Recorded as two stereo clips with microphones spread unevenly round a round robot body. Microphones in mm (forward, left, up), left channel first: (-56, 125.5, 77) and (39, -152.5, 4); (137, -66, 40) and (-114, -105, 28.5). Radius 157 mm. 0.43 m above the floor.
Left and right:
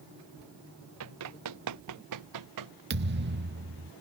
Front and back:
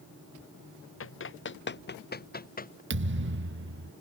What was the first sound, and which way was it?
Running footsteps, 25° right.